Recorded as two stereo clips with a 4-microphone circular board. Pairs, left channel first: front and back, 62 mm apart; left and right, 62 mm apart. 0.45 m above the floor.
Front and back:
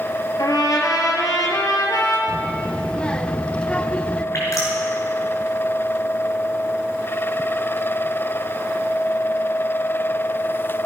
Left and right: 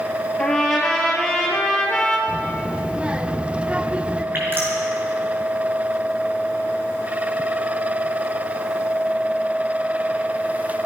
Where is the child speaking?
45° right, 0.6 m.